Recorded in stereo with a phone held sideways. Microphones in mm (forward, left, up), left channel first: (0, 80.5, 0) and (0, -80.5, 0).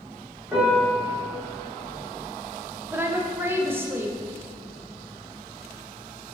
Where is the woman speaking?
15° right (ahead or behind), 0.5 m.